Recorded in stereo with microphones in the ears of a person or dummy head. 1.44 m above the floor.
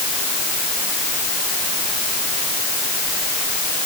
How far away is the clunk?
I don't hear a clunk.